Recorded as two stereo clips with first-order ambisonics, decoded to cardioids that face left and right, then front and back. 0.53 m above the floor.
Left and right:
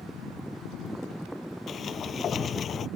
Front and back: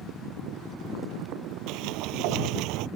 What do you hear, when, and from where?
1.7 s a sliding door: 150° left